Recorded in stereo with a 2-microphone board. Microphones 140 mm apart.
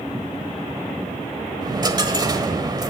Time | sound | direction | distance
1.6 | a dropped coin | 30° right (ahead or behind) | 1.3 m